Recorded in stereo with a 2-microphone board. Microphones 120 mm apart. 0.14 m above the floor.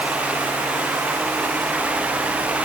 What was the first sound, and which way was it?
Only background noise.